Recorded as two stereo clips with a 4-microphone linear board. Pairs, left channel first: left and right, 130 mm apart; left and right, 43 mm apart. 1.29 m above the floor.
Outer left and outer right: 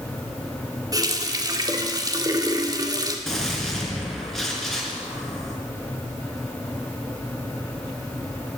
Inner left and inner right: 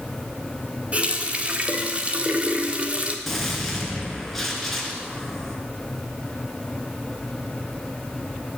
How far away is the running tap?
About 1.8 m.